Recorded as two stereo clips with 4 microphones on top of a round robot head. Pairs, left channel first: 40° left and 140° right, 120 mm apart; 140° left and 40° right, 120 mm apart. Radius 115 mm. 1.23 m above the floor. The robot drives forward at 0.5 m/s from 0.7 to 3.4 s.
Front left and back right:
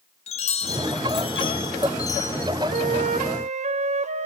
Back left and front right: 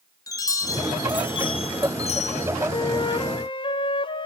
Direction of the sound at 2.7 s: 165° right.